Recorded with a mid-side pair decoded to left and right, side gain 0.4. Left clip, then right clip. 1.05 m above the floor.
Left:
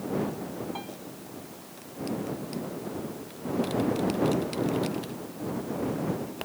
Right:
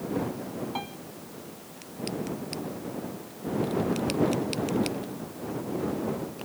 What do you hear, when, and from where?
0.8 s a piano: 40° right